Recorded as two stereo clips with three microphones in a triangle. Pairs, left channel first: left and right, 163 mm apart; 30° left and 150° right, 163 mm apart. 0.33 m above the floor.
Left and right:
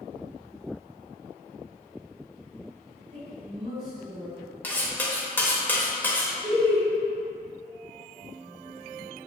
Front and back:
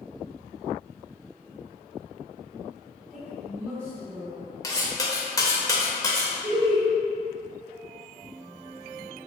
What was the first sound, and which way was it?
A woman speaking, 70° right.